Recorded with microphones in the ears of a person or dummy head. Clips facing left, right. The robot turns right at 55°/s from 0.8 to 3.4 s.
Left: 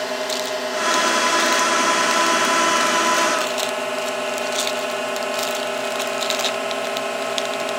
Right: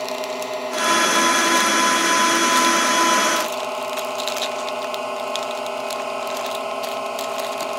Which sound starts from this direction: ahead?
A drone, at 0.0 s.